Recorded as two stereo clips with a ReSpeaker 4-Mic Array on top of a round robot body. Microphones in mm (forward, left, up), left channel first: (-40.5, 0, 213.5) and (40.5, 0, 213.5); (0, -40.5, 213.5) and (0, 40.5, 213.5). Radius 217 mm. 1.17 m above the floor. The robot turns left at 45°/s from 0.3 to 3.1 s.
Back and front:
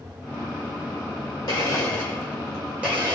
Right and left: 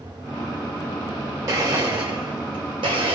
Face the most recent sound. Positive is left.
turn(degrees=65)